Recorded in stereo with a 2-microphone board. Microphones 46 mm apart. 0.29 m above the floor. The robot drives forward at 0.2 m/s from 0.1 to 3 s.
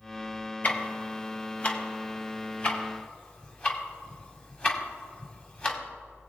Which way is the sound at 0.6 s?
35° left (ahead or behind).